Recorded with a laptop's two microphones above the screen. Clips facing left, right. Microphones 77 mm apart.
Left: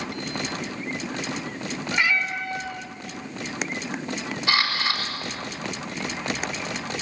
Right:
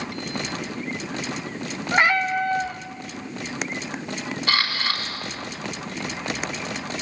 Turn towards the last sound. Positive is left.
turn(degrees=10)  # may be behind; listen again after turning